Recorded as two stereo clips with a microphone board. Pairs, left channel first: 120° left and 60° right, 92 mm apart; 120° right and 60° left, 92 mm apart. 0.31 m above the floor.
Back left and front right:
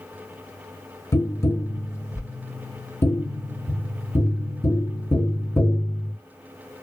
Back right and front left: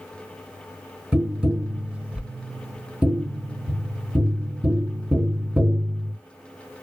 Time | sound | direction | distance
1.1 | tapping | 125° left | 0.6 m